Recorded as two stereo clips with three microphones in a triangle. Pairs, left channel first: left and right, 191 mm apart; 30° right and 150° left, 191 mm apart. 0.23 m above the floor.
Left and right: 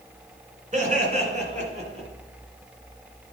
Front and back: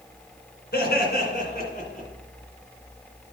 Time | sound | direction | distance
0.7 | laughter | 45° right | 2.5 m